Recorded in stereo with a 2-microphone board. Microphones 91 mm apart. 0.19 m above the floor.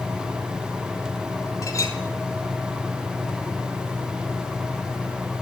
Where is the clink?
35° left (ahead or behind), 3.5 m.